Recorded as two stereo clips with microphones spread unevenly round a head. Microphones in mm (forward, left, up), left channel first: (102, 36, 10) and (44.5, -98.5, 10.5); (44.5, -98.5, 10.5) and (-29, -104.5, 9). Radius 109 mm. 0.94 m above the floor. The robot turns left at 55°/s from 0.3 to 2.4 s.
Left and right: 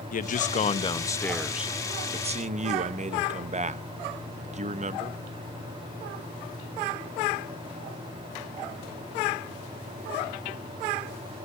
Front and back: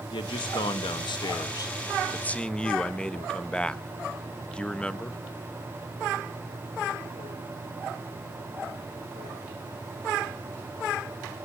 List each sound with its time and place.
0.1 s a man speaking: 40° left, 0.8 m; by 5.2 s 75° right, 0.8 m